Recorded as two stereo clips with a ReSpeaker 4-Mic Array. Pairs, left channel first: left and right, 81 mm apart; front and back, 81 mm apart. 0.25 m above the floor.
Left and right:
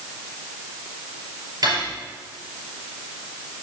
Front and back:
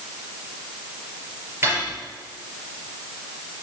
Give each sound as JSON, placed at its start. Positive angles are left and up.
{"t": 1.6, "sound": "cutlery clinking", "azimuth_deg": -125, "distance_m": 3.5}